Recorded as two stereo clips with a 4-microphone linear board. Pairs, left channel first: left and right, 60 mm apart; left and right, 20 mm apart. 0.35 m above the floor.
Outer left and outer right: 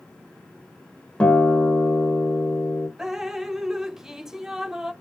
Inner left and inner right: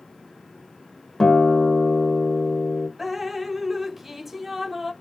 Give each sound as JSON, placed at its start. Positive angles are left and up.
{"t": 1.2, "sound": "a guitar", "side_deg": 20, "distance_m": 1.6}
{"t": 3.0, "sound": "dripping", "side_deg": -5, "distance_m": 0.7}